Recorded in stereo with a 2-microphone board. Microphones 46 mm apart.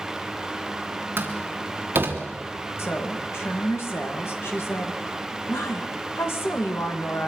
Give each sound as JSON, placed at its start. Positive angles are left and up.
{"t": 1.2, "sound": "a door slam", "side_deg": -50, "distance_m": 3.5}
{"t": 2.8, "sound": "a woman speaking", "side_deg": 65, "distance_m": 2.5}